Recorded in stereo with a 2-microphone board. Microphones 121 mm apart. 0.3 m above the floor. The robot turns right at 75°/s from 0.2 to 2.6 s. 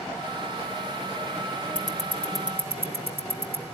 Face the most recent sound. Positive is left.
turn(degrees=-20)  # may be behind; listen again after turning